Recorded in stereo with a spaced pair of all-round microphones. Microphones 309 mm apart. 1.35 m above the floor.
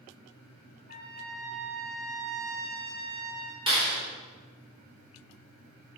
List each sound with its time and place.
0.9 s a trumpet: 40° right (ahead or behind), 1.2 m
3.7 s a clap: 15° right (ahead or behind), 4 m